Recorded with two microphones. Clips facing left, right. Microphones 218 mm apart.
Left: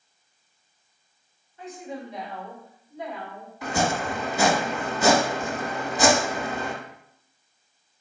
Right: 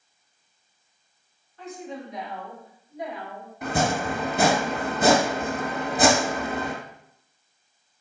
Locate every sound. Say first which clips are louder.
1.6 s a woman speaking: even; 20° left (ahead or behind), 1.3 m; by 3.5 s 20° right (ahead or behind), 1.8 m
3.6 s chopping: right 1 dB; 55° right (ahead or behind), 0.9 m